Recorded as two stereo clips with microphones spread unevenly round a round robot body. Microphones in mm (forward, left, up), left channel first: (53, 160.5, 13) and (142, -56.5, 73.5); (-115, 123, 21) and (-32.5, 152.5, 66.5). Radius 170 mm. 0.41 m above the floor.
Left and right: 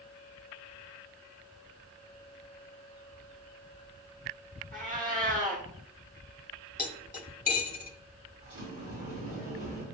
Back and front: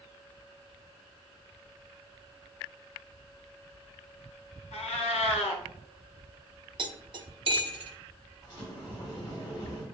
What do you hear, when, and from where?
4.7 s a cat meowing: 150° right, 0.6 m
6.8 s cutlery clinking: 60° left, 1.3 m
8.4 s a sliding door: 135° right, 2 m